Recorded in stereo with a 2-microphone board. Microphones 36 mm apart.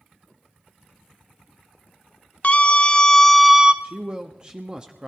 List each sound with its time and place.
2.4 s a scream: 40° left (ahead or behind), 1.8 m; by 3.7 s 20° right (ahead or behind), 1.1 m
3.8 s a man speaking: 25° right (ahead or behind), 1.1 m